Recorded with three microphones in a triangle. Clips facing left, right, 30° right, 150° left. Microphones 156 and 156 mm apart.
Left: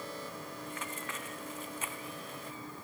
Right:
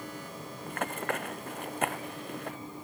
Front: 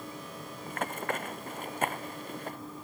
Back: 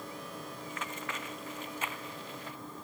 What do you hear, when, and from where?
0.7 s running footsteps: 65° right; by 2.6 s 70° right